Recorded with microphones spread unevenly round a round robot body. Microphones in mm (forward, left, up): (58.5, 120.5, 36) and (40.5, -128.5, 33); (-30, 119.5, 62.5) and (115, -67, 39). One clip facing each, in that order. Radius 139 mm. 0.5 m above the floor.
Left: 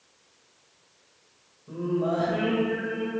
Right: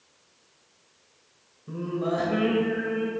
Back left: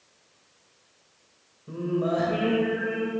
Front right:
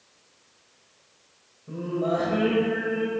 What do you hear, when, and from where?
1.7 s singing: 155° right, 1.5 m